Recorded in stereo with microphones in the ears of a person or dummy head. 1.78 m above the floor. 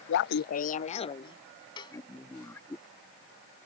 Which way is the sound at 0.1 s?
70° left (ahead or behind).